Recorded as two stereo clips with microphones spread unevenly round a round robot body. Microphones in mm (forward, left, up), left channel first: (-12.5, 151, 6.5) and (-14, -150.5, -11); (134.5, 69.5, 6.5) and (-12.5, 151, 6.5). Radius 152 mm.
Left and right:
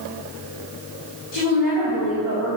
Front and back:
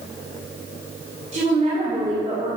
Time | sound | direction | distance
1.3 | a woman speaking | 110° left | 3 m